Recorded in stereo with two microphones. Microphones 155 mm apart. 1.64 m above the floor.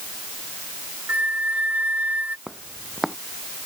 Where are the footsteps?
Centre (ahead or behind).